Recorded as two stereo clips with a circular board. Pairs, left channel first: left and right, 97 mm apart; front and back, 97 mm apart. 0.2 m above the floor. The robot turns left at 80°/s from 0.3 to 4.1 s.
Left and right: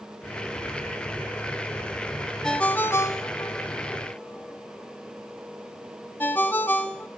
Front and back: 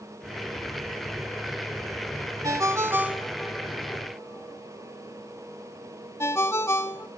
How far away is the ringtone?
About 0.9 m.